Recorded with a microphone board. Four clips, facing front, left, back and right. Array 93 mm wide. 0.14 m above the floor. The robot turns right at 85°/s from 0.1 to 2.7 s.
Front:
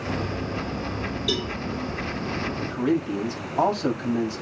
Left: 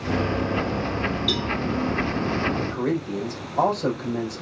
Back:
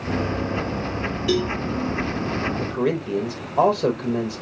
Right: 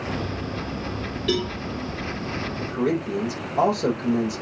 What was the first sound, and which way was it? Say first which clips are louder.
A cowbell: right 2 dB, back 8 dB; 130° right.